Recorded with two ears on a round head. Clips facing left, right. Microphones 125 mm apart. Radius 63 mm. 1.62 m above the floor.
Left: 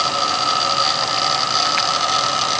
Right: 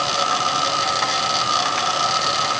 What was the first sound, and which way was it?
Only background noise.